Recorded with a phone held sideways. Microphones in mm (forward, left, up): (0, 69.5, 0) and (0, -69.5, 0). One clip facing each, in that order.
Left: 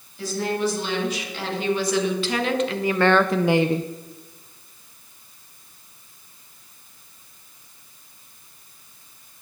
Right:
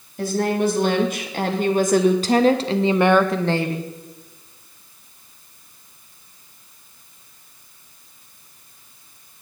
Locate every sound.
0.2 s a woman speaking: 55° right (ahead or behind), 2.5 m; by 3.9 s 35° left (ahead or behind), 0.7 m